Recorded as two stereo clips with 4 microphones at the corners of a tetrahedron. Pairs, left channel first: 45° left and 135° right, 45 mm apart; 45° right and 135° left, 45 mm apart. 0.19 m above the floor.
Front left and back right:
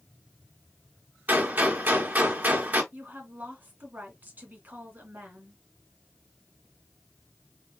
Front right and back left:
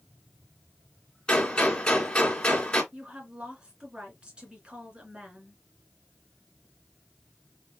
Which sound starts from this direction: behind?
A woman speaking, at 2.9 s.